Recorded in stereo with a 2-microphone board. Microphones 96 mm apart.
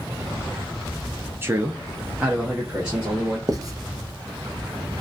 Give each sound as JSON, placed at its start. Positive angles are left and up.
{"t": 1.4, "sound": "a man speaking", "side_deg": -25, "distance_m": 0.5}
{"t": 3.5, "sound": "writing", "side_deg": -35, "distance_m": 0.6}